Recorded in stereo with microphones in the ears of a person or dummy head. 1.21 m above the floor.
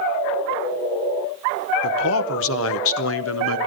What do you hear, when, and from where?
1.8 s a man speaking: 70° left (ahead or behind), 0.8 m